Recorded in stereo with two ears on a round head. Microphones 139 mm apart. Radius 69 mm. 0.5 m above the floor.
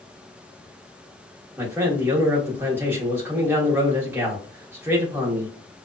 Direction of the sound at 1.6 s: 15° right (ahead or behind).